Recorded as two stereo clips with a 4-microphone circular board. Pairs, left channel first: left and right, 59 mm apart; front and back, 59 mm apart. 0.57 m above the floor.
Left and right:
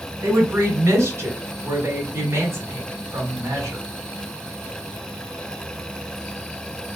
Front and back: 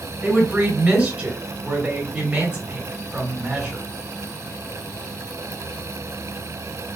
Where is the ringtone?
No ringtone in this recording.